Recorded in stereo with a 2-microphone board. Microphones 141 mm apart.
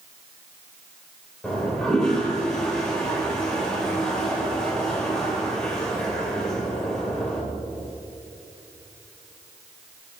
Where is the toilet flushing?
5° left (ahead or behind), 3 m.